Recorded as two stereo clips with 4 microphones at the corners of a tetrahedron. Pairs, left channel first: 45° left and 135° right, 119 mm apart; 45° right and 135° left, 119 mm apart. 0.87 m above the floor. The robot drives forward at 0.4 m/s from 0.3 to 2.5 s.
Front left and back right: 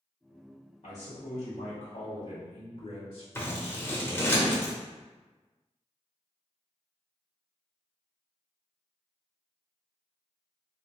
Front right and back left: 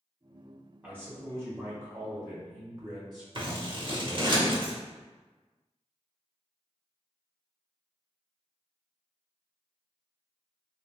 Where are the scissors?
105° left, 0.7 m.